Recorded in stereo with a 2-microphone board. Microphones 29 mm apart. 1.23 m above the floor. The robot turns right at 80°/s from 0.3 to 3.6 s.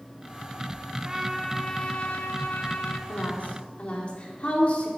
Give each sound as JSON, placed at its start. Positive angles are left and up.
{"t": 1.0, "sound": "a trumpet", "azimuth_deg": -30, "distance_m": 2.0}
{"t": 3.1, "sound": "a woman speaking", "azimuth_deg": 90, "distance_m": 4.0}